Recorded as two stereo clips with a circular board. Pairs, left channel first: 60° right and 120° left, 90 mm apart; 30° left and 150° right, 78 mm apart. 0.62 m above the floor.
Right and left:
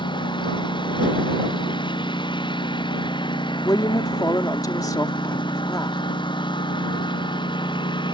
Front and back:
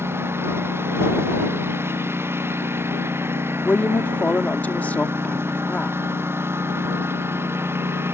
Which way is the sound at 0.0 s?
95° right.